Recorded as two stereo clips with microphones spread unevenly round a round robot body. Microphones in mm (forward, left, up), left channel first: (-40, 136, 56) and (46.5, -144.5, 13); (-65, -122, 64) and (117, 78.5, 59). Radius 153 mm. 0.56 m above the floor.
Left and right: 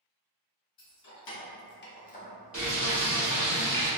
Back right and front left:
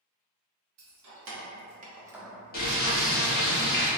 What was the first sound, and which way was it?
Keys jangling, 55° left.